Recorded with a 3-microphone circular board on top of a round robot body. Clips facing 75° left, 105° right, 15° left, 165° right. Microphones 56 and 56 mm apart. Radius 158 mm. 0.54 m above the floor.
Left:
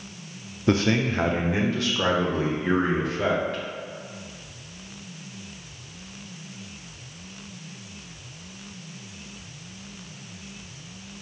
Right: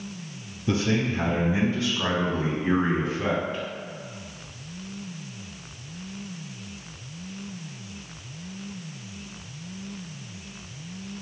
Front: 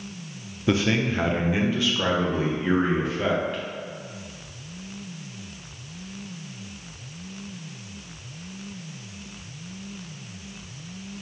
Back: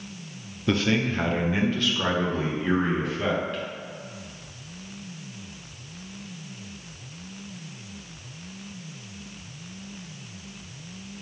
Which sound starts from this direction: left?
A man speaking, at 0.7 s.